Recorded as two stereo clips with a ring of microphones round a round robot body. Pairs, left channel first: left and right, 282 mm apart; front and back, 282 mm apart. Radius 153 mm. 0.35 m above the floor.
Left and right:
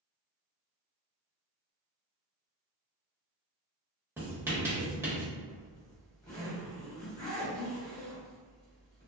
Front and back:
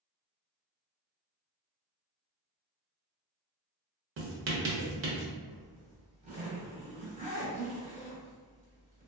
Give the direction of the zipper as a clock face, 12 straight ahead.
7 o'clock.